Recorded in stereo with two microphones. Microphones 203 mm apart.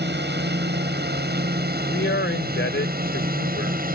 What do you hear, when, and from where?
0.0 s a drone: 60° right (ahead or behind); by 4.0 s 45° right (ahead or behind)
1.9 s a man speaking: 70° left (ahead or behind)